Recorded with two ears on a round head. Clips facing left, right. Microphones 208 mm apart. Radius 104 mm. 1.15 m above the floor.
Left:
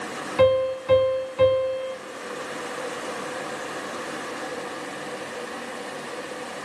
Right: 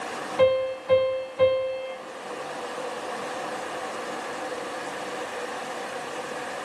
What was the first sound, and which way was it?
A piano, 65° left (ahead or behind).